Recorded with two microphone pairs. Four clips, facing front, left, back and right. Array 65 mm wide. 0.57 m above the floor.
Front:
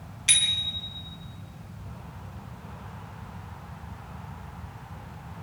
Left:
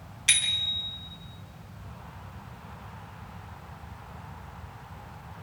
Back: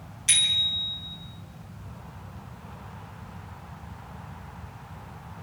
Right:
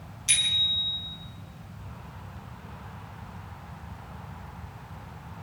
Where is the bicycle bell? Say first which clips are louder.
Even, back 1 dB; 60° left, 4 m.